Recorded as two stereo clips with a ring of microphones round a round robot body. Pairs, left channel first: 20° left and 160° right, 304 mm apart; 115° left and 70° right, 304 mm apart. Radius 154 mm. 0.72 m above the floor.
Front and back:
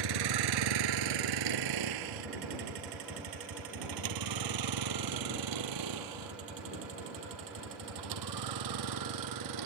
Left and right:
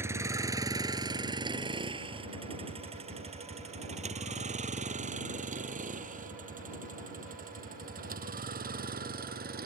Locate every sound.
0.0 s a vehicle: 150° right; by 9.7 s 130° right